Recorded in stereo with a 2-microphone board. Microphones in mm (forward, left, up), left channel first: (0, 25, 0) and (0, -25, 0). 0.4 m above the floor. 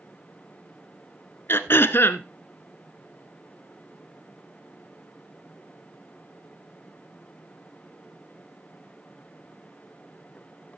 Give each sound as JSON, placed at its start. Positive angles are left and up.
{"t": 1.5, "sound": "throat clearing", "side_deg": 60, "distance_m": 0.9}